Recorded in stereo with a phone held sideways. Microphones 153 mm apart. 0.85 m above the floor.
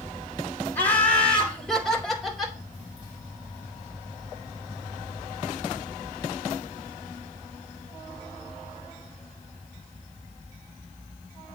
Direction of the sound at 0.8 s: 15° left (ahead or behind).